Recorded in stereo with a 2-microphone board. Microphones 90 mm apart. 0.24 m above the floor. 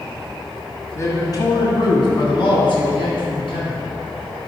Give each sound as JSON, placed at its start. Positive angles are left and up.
{"t": 0.9, "sound": "a man speaking", "side_deg": 35, "distance_m": 1.5}